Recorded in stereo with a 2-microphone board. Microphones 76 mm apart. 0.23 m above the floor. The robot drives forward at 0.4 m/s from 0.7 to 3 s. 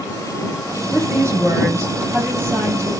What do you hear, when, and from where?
0.9 s a woman speaking: 40° right (ahead or behind), 2 m; by 2.9 s 30° right (ahead or behind), 2.5 m